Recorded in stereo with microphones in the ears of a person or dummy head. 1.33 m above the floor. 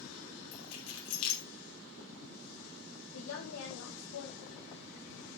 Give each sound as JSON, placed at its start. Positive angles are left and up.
{"t": 0.5, "sound": "keys jangling", "side_deg": 85, "distance_m": 3.0}
{"t": 3.1, "sound": "a woman speaking", "side_deg": 80, "distance_m": 1.7}